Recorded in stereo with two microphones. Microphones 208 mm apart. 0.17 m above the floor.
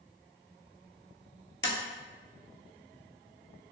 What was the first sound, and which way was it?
Tapping, 65° left (ahead or behind).